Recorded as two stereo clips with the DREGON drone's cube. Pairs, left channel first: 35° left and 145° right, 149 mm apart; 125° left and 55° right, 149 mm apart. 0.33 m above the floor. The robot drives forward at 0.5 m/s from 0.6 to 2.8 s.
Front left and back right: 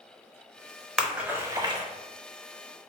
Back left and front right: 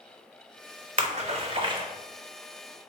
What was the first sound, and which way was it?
A splash, 55° right.